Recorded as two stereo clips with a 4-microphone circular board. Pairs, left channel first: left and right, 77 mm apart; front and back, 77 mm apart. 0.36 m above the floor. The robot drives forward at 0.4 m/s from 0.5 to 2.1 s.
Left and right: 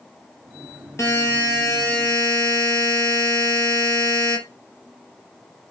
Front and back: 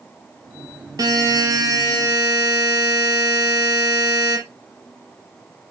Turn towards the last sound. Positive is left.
turn(degrees=145)